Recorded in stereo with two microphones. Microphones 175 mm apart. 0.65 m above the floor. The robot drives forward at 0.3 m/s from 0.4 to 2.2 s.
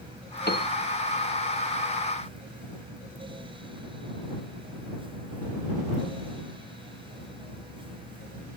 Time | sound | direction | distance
0.5 | a piano | 65° left (ahead or behind) | ?